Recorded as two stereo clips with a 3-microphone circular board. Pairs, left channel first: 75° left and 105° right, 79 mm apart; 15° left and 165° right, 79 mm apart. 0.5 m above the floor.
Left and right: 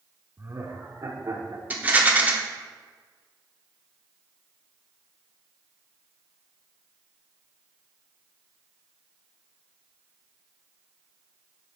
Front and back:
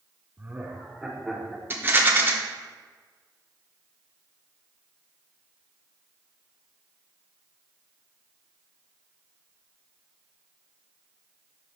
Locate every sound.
0.4 s laughter: 120° right, 0.9 m; by 1.6 s 70° right, 1.7 m
1.7 s a rattle: 145° right, 0.8 m